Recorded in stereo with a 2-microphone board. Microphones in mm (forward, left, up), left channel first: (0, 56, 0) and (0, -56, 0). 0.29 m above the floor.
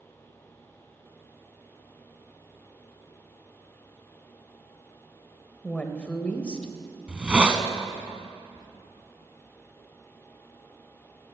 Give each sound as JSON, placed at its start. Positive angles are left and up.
{"t": 5.6, "sound": "a woman speaking", "side_deg": 10, "distance_m": 0.9}
{"t": 7.1, "sound": "a hiss", "side_deg": -10, "distance_m": 0.7}
{"t": 8.6, "sound": "whispering", "side_deg": 35, "distance_m": 1.2}